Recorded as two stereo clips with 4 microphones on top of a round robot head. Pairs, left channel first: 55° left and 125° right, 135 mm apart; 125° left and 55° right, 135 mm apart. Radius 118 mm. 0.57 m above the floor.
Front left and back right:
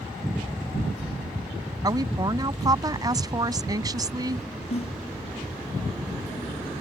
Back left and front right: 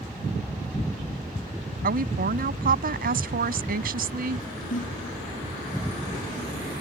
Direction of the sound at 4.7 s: 100° left.